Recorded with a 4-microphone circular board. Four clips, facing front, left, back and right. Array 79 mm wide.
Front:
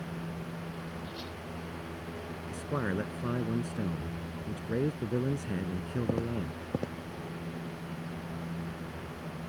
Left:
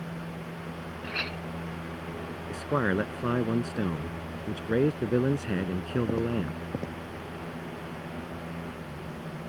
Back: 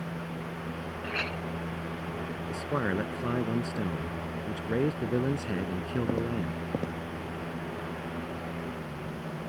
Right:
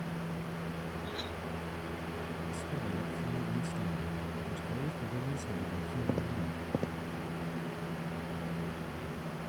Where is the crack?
I don't hear a crack.